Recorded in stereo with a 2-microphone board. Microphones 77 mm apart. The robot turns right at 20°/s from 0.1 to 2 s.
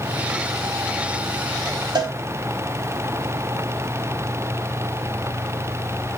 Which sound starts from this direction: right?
A cowbell, at 1.9 s.